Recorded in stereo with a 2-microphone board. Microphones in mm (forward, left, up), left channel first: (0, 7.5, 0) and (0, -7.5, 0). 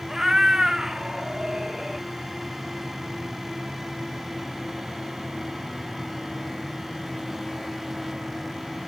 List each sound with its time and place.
0.1 s a cat meowing: 30° right (ahead or behind), 0.6 m; by 2.1 s 50° right (ahead or behind), 1.2 m